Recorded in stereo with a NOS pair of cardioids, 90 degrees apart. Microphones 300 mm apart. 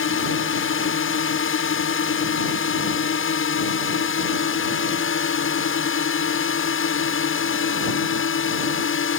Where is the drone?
45° left.